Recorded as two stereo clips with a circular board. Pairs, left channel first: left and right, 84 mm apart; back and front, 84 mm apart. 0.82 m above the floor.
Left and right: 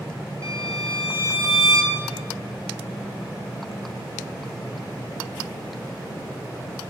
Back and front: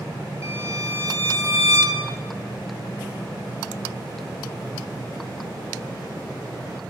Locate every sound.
0.4 s a violin: 50° right, 3 m